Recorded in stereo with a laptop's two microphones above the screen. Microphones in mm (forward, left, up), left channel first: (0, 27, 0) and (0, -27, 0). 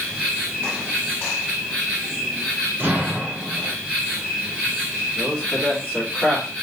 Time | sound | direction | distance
0.0 | an insect | 10° right (ahead or behind) | 3.5 m
2.8 | an explosion | 40° right (ahead or behind) | 3 m
5.2 | a man speaking | 10° left (ahead or behind) | 2.5 m